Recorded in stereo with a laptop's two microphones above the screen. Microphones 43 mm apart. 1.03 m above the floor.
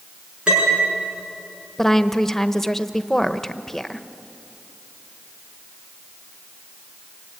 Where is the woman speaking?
5° left (ahead or behind), 1.0 m.